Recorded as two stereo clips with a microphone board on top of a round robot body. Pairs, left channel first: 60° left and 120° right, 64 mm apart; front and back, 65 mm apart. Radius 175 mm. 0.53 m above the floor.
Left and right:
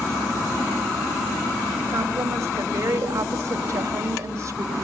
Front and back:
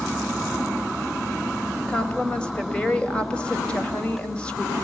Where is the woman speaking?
75° right, 4.5 m.